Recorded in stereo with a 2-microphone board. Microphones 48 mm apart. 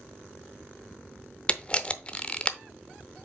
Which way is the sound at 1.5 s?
25° left (ahead or behind).